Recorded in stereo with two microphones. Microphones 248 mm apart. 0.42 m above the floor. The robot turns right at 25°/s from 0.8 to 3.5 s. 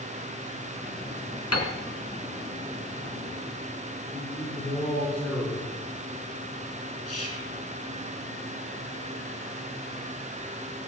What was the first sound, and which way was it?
A piano, 75° left (ahead or behind).